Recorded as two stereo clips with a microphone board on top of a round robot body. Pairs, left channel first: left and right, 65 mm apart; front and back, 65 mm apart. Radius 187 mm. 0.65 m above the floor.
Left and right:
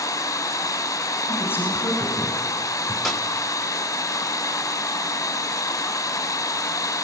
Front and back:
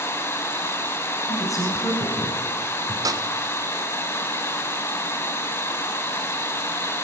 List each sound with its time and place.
0.0 s running water: 50° left, 2.5 m
1.3 s a man speaking: 35° left, 5.5 m
3.0 s a snare drum: straight behind, 2 m